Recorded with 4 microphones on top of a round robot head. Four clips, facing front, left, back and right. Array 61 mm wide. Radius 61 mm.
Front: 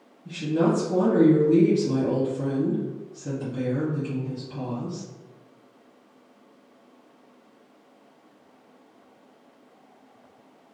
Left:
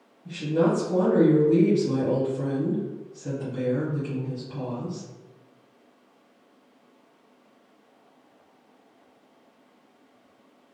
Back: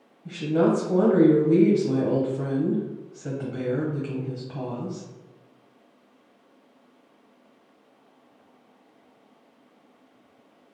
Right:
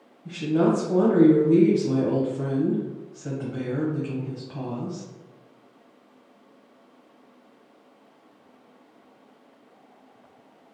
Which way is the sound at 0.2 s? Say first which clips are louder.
Right 1 dB, back 1 dB; 165° right.